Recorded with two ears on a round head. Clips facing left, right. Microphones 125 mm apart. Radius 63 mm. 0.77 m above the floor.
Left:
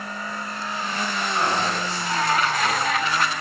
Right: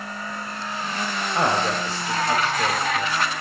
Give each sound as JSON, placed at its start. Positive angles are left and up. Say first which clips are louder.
{"t": 1.4, "sound": "a man speaking", "louder": "right 3 dB", "side_deg": -65, "distance_m": 3.5}